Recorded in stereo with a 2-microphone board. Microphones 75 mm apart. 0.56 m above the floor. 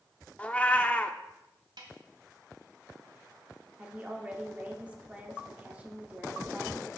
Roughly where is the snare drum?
Right.